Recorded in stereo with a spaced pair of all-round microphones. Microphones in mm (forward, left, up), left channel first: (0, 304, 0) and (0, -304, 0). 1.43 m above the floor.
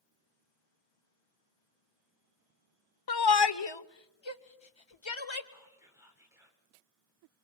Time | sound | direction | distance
3.1 | a shout | 40° left (ahead or behind) | 0.6 m
5.5 | whispering | 5° right (ahead or behind) | 6 m